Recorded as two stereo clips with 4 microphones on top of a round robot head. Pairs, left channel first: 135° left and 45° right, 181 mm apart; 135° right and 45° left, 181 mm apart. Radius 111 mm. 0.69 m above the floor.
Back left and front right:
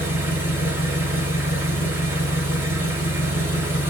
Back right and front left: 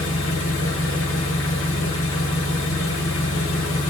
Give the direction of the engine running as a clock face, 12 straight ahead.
4 o'clock.